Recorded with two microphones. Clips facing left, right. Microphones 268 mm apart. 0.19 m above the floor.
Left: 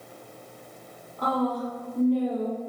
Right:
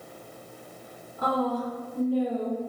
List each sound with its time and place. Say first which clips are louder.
1.2 s a woman speaking: left 1 dB; 5° right (ahead or behind), 1.4 m